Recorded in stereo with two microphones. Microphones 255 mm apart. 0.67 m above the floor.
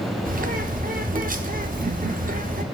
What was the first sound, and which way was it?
A bird, 30° right (ahead or behind).